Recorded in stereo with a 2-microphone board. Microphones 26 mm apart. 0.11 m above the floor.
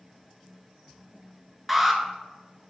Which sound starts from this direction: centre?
An alarm, at 1.7 s.